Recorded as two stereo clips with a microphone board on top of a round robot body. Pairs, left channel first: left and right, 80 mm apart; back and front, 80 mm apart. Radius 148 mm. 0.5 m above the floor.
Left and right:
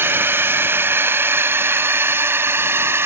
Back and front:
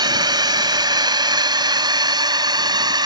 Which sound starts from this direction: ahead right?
A drone, at 0.0 s.